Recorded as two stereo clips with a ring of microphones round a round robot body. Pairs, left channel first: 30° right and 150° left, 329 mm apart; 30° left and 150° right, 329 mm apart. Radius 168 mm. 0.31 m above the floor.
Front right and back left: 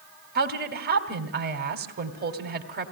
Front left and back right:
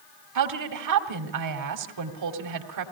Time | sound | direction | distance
0.3 | a woman speaking | 155° right | 2.5 m